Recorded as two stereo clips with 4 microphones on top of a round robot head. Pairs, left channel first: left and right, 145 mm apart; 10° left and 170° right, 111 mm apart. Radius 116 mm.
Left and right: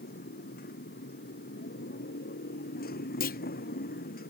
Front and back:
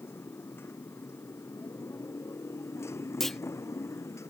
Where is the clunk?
100° left.